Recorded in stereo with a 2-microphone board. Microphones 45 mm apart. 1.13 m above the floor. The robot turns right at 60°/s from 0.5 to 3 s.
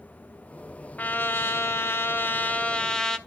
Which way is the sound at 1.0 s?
40° left.